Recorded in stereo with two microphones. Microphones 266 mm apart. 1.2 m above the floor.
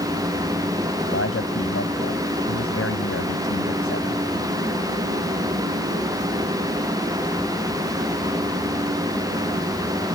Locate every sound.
1.1 s a man speaking: 55° left (ahead or behind)